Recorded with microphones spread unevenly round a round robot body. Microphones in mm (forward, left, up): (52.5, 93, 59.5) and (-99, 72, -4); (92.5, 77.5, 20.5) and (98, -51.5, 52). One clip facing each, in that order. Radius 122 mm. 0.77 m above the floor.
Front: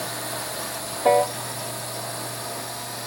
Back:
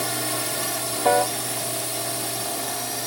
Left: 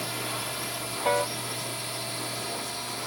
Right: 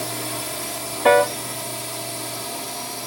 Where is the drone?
135° right; by 3.1 s 140° right.